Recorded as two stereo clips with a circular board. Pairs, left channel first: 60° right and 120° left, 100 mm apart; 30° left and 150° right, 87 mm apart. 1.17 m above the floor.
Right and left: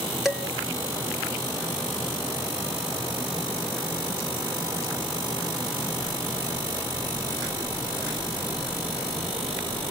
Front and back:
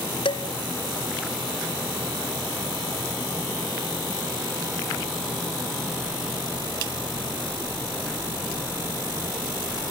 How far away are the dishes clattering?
About 2 m.